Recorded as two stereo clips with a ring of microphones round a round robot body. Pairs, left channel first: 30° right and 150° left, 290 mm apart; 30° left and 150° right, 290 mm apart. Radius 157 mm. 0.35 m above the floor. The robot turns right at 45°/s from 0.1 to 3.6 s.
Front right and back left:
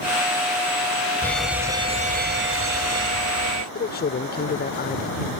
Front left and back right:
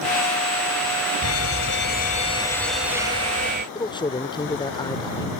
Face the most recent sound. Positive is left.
turn(degrees=-30)